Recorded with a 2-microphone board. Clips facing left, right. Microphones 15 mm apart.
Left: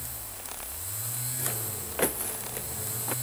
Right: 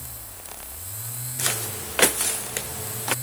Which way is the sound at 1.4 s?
80° right.